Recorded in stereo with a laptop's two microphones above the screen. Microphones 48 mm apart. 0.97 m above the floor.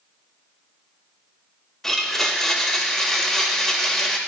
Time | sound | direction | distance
1.8 | a blender | 5° left (ahead or behind) | 1.1 m